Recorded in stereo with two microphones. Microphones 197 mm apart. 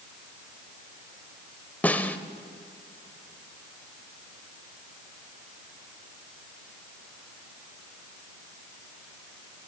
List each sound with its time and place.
1.8 s a snare drum: 10° left (ahead or behind), 0.7 m